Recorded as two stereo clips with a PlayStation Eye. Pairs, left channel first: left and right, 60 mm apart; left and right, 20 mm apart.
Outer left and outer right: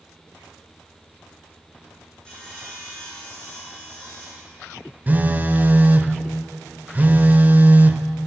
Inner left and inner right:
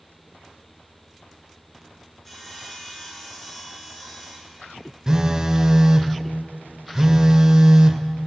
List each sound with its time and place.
2.2 s sawing: 15° left (ahead or behind), 5.5 m
5.1 s a phone buzzing: 30° right (ahead or behind), 0.5 m